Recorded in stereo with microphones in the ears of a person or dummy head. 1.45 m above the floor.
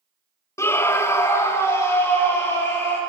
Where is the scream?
15° left (ahead or behind), 0.6 m; by 3.0 s 10° left (ahead or behind), 3 m.